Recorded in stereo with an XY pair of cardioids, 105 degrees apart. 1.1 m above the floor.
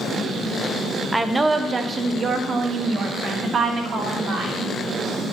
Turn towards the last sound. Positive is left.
turn(degrees=-60)